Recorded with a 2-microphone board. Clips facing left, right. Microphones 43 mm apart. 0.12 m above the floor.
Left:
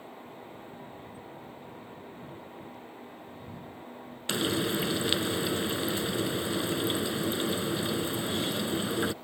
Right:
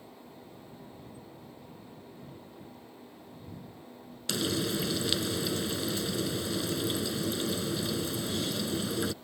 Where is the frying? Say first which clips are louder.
Left 2 dB; 30° left (ahead or behind).